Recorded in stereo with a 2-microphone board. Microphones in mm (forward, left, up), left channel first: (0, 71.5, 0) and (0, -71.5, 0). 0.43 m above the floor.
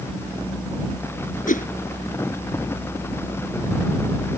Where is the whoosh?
70° left (ahead or behind).